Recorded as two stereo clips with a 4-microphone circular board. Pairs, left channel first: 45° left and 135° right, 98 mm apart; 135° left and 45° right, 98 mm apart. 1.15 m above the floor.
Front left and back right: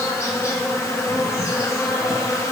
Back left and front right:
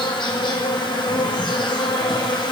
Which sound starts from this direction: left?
An insect, at 0.0 s.